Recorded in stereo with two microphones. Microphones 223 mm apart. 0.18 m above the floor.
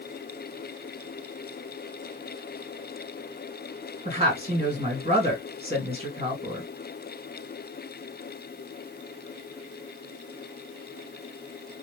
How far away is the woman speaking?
About 2 m.